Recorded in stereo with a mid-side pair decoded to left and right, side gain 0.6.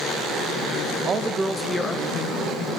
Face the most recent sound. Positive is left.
turn(degrees=80)